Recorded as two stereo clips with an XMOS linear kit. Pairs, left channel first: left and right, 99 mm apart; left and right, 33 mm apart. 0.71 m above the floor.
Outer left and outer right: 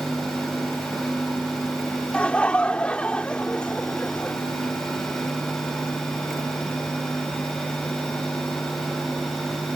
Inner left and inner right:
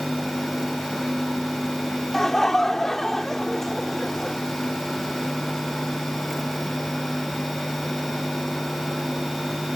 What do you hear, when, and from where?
2.1 s laughter: 10° left (ahead or behind)